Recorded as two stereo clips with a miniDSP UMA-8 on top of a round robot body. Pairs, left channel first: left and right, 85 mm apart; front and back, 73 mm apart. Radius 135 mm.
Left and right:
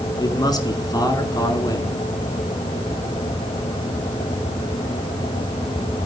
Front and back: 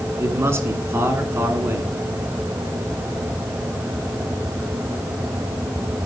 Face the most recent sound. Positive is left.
turn(degrees=130)